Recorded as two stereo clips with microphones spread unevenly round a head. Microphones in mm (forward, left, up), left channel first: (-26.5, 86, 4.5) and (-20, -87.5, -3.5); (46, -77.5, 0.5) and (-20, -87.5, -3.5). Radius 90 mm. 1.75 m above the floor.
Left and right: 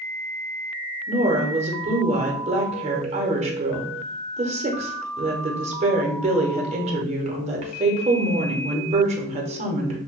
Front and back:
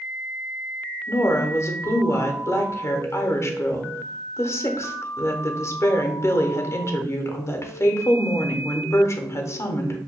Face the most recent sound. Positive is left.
turn(degrees=-30)